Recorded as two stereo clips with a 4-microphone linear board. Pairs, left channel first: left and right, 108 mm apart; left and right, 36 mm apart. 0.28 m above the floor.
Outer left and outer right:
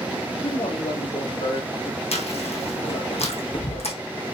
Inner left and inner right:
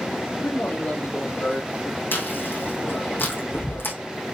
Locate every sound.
0.4 s a man speaking: 65° left (ahead or behind), 4 m; by 2.0 s 75° left (ahead or behind), 4.5 m
2.1 s chewing: 80° left, 3.5 m